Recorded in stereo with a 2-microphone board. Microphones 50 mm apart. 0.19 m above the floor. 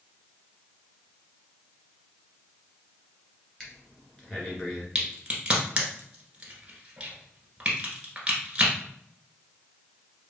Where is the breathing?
15° left (ahead or behind), 1.6 m.